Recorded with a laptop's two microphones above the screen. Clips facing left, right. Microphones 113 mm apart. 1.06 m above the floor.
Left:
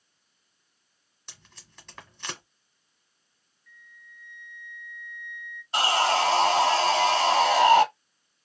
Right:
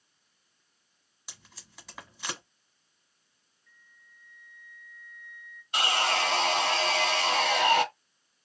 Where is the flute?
40° right (ahead or behind), 0.7 m.